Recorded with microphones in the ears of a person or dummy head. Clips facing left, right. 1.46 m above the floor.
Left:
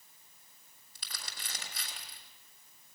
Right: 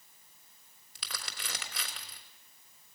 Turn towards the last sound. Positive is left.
turn(degrees=-65)  # may be behind; listen again after turning